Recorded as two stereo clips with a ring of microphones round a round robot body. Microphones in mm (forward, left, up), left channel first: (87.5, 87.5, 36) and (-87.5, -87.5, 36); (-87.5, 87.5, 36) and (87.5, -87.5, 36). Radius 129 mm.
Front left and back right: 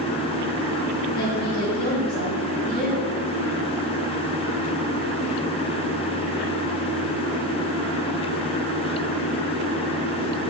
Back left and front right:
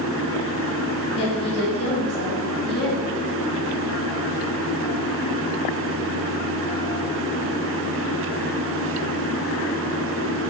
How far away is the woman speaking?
About 2 m.